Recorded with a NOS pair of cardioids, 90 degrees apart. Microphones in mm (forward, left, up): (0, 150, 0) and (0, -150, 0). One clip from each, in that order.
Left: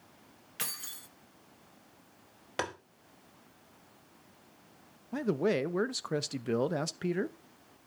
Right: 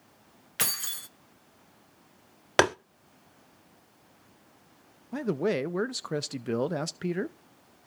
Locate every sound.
0.6 s keys jangling: 35° right, 0.6 m
2.6 s tapping: 60° right, 0.8 m
5.1 s a man speaking: 5° right, 0.6 m